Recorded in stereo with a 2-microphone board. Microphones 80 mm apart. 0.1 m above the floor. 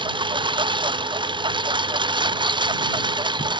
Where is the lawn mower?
85° right; by 3.6 s 75° right (ahead or behind).